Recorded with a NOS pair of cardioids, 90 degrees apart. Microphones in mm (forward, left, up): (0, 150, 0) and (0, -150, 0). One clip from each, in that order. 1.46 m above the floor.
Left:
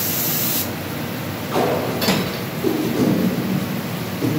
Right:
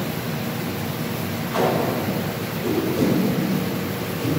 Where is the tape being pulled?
65° left, 2.5 m.